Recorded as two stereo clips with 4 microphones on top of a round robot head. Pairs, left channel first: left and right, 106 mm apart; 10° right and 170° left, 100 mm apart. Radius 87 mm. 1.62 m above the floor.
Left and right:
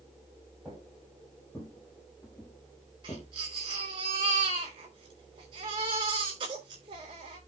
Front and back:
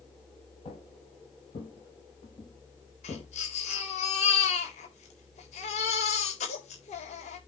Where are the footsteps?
Straight ahead, 3 m; by 3.3 s 35° left, 2 m.